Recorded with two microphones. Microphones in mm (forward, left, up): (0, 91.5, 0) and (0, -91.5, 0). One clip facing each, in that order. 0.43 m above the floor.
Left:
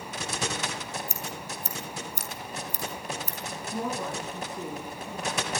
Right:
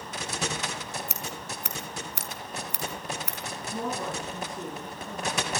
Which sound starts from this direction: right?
Scissors, at 1.1 s.